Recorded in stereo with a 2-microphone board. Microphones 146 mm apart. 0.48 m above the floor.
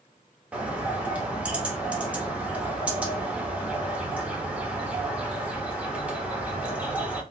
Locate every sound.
0.5 s a bird: 10° right (ahead or behind), 0.9 m